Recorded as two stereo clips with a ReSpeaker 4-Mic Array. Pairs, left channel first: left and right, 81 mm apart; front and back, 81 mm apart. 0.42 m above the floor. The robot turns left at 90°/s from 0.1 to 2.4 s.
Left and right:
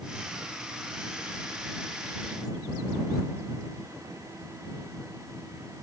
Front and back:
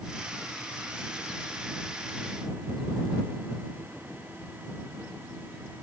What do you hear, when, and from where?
Only background noise.